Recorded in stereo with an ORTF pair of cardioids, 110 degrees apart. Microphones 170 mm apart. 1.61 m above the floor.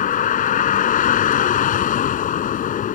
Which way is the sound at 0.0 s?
55° left.